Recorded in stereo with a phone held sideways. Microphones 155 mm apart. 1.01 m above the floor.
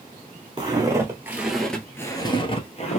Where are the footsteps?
30° right (ahead or behind), 1.5 m; by 3.0 s 45° left (ahead or behind), 1.3 m.